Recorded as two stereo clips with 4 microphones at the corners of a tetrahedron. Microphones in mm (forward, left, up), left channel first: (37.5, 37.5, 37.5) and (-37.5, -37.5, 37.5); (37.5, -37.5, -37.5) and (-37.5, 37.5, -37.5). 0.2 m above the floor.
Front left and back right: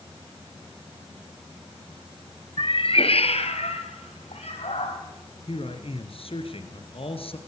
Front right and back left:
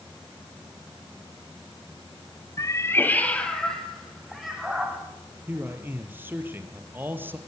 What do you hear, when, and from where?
2.6 s a cat meowing: 10° left, 1.6 m; by 5.0 s 50° left, 4.5 m
5.5 s a man speaking: 65° left, 3 m